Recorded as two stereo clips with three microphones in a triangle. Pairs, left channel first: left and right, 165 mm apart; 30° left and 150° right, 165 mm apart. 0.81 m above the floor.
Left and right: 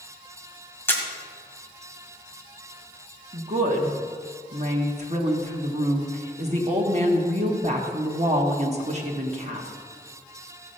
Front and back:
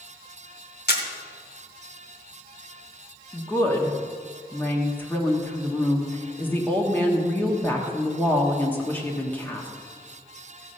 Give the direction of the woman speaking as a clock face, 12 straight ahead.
2 o'clock.